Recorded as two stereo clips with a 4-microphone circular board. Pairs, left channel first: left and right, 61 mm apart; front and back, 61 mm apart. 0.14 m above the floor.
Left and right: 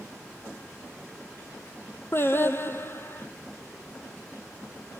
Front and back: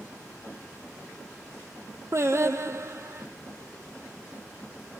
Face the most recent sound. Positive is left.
turn(degrees=140)